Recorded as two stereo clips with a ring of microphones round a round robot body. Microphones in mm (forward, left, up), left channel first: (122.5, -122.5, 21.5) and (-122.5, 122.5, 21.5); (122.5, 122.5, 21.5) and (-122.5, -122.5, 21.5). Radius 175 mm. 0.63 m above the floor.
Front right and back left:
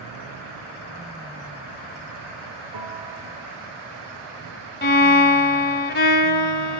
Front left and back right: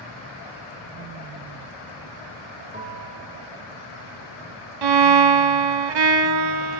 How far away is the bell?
About 7 m.